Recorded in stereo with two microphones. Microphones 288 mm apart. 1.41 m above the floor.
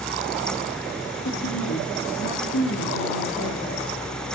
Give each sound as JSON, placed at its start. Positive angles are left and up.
{"t": 1.2, "sound": "a woman speaking", "side_deg": 85, "distance_m": 3.5}